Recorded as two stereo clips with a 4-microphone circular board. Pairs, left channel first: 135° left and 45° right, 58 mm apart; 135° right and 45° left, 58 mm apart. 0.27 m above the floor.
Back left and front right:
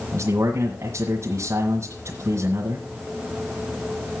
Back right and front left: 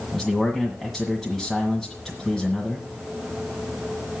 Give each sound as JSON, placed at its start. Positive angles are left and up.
{"t": 0.1, "sound": "a man speaking", "azimuth_deg": -45, "distance_m": 1.8}